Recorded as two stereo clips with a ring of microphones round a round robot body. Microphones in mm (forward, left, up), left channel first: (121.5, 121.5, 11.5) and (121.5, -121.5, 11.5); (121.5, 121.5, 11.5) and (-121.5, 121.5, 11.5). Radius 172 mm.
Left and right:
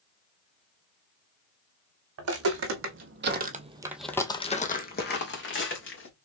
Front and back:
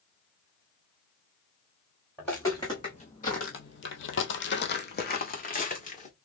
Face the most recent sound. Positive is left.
turn(degrees=60)